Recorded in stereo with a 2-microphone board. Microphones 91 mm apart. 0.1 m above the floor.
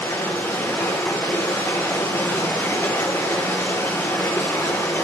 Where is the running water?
30° left (ahead or behind), 5 m.